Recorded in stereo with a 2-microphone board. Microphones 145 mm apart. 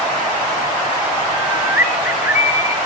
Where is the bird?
15° right (ahead or behind), 1.2 m.